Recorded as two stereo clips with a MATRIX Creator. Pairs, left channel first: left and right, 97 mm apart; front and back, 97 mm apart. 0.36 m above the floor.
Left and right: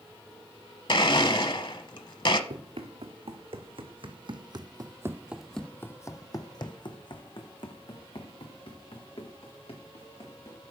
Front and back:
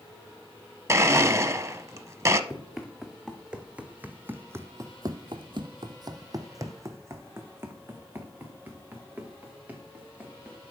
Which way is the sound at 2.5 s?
95° right.